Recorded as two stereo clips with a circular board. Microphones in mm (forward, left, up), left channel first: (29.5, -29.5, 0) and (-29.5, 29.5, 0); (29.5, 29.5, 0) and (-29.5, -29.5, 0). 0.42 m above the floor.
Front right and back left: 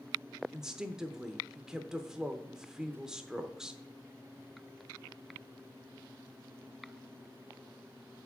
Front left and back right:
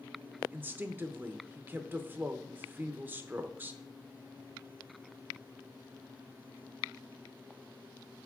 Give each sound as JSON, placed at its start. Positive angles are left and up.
{"t": 0.5, "sound": "a woman speaking", "azimuth_deg": -150, "distance_m": 0.8}